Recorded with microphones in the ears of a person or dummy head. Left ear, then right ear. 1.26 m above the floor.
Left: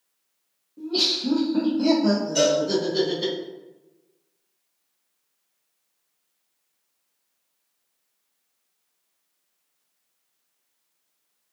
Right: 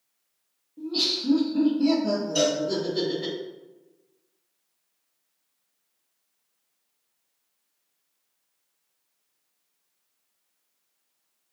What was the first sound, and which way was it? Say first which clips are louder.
Laughter: left 3 dB; centre (ahead or behind).